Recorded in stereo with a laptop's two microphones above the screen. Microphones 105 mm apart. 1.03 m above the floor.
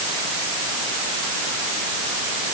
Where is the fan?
I don't hear a fan.